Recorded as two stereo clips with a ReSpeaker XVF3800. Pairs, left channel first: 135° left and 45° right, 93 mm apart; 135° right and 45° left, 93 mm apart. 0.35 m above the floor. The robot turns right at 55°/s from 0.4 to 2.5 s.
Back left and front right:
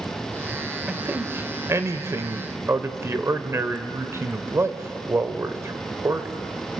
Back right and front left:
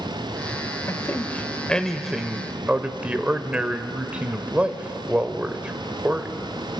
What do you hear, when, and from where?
0.9 s a man speaking: 110° right, 1.2 m; by 6.5 s 20° right, 1.2 m